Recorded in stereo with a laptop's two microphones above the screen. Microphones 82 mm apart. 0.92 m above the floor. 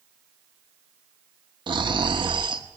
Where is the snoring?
75° right (ahead or behind), 1.2 m.